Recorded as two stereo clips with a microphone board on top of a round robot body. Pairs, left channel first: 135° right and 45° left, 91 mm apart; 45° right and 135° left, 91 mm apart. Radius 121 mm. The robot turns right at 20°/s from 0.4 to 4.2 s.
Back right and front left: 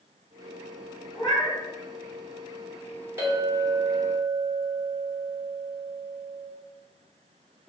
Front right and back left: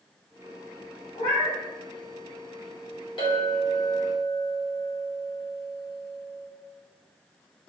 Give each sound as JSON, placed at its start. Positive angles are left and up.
{"t": 1.1, "sound": "a cat meowing", "azimuth_deg": -80, "distance_m": 1.5}
{"t": 3.2, "sound": "a clink", "azimuth_deg": -20, "distance_m": 1.4}